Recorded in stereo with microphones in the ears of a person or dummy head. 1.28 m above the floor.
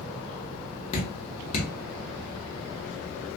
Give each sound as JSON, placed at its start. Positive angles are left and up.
{"t": 0.9, "sound": "dripping", "side_deg": 35, "distance_m": 1.0}